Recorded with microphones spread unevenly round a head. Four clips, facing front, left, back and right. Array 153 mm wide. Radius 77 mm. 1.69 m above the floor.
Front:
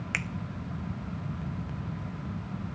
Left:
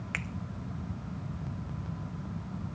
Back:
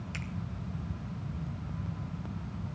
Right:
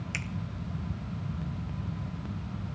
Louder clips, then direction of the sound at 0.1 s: Left 3 dB, front 9 dB; 25° left.